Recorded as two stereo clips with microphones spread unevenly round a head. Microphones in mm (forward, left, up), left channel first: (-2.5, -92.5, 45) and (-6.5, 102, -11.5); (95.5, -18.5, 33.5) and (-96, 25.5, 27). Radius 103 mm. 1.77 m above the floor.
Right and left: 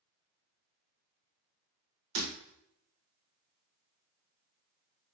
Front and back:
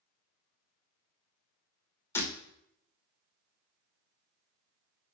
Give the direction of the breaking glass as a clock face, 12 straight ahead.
10 o'clock.